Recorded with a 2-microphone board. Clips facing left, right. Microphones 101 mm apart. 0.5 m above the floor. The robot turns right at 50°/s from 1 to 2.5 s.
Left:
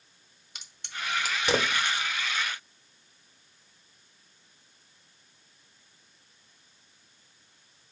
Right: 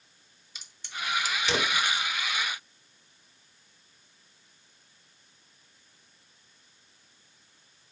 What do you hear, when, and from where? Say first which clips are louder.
0.6 s a crack: right 1 dB; 60° left (ahead or behind), 0.8 m; by 2.1 s 20° left (ahead or behind), 0.8 m